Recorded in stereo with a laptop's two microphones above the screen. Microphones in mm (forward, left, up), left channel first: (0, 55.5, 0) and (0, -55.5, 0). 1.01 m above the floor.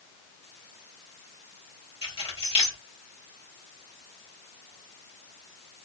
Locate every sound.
2.0 s keys jangling: 55° left (ahead or behind), 1.3 m